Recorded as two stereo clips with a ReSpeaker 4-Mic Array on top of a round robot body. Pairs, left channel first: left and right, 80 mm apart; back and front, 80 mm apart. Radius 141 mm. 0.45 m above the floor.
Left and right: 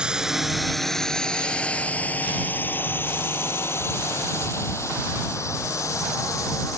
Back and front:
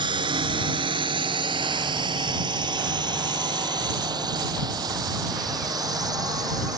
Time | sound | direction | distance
0.0 | a drone | 10° right | ?